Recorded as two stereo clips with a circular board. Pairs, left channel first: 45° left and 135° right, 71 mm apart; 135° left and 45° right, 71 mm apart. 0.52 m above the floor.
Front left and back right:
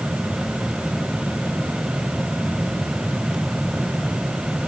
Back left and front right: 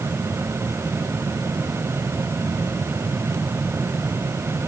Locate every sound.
Only background noise.